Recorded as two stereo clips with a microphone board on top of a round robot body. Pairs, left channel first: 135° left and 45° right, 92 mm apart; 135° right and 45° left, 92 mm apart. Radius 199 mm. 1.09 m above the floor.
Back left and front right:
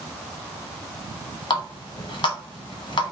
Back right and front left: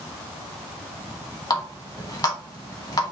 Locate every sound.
1.5 s a running tap: 175° left, 1.3 m